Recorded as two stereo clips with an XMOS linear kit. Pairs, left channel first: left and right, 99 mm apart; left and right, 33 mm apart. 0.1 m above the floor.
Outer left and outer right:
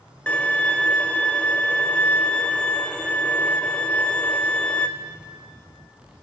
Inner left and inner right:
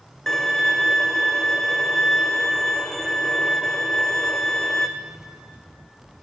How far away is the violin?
About 1.6 m.